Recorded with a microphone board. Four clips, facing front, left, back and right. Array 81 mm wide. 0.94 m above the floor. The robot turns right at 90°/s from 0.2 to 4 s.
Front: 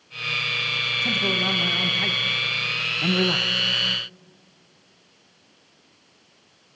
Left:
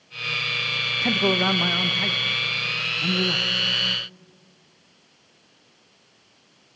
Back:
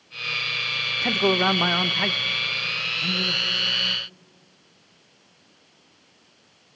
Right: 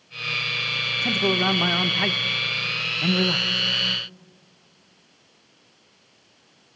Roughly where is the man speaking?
Behind left.